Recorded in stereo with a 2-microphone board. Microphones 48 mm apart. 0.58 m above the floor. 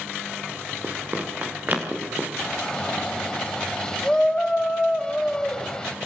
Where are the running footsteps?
40° right (ahead or behind), 5.5 m; by 2.3 s 30° right (ahead or behind), 6 m.